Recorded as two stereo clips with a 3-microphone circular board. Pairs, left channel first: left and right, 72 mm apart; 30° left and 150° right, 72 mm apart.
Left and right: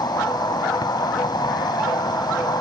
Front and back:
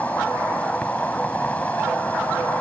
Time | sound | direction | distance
0.0 | an insect | 100° left | ?